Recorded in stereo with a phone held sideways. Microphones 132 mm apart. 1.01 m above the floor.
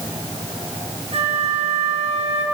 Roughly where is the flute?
Right.